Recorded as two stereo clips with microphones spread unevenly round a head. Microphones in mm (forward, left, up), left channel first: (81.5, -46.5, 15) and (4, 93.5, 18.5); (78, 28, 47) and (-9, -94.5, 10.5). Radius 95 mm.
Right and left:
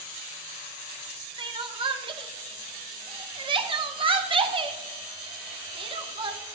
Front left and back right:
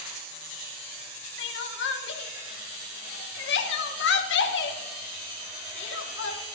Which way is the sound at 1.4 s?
60° left.